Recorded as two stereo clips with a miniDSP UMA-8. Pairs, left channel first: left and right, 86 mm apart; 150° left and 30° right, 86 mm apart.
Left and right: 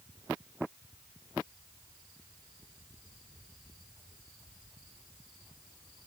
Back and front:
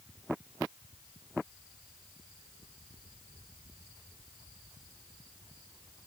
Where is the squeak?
I don't hear a squeak.